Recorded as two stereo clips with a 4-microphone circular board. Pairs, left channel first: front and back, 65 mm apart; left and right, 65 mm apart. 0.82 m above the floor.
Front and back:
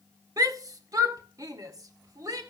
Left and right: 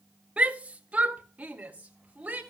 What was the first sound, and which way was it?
A shout, 160° right.